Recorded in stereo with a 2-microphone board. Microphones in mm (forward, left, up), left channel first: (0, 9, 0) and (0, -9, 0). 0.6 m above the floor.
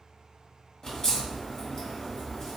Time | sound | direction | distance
0.8 | a crack | 30° left (ahead or behind) | 1.1 m